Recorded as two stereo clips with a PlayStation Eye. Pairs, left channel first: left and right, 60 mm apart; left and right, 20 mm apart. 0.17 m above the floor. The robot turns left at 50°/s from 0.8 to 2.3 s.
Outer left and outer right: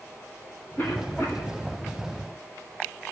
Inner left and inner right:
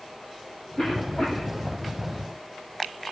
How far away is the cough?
About 1.5 m.